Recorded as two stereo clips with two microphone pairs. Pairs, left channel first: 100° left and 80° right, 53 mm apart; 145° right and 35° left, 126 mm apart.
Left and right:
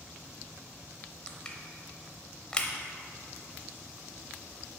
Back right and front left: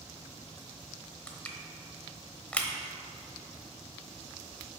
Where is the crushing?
145° left, 0.9 m.